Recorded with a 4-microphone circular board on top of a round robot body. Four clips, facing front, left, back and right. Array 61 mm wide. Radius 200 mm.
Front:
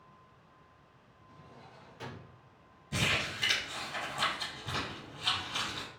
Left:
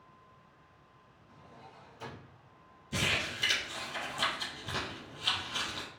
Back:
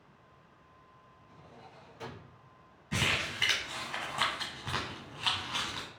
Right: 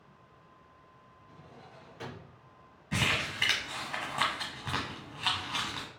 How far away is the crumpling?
About 1.1 m.